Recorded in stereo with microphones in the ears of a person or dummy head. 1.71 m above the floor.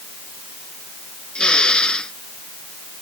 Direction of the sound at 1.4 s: 5° left (ahead or behind).